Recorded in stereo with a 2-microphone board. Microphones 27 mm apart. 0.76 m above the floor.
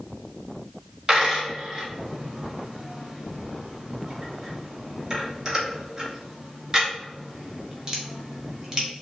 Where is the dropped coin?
20° right (ahead or behind), 0.9 m.